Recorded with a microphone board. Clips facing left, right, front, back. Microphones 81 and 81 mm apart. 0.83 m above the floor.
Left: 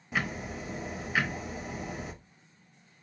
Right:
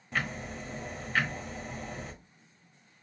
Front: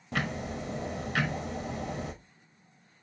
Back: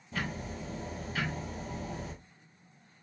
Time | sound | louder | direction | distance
0.1 | ticking | left 1 dB, front 4 dB | 5° left | 0.6 m